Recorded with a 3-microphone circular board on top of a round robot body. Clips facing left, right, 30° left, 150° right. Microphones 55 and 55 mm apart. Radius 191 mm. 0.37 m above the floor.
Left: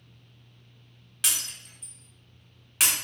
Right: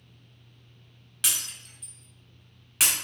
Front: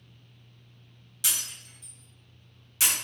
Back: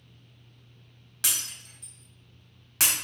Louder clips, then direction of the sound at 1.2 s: Even, back 1 dB; straight behind.